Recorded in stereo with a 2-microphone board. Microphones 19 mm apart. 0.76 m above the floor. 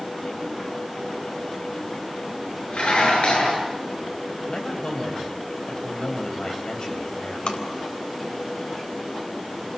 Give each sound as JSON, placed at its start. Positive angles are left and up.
{"t": 2.7, "sound": "dishes clattering", "side_deg": 85, "distance_m": 7.5}
{"t": 4.5, "sound": "a man speaking", "side_deg": 50, "distance_m": 5.0}
{"t": 7.5, "sound": "tapping", "side_deg": 70, "distance_m": 3.5}